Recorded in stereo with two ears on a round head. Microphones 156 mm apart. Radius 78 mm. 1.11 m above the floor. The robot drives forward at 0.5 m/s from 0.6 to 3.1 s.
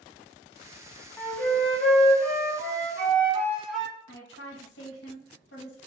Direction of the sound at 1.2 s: 10° left (ahead or behind).